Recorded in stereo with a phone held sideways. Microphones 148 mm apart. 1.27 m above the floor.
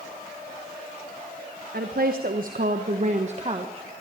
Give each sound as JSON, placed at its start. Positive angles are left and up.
{"t": 1.7, "sound": "a woman speaking", "side_deg": -75, "distance_m": 1.5}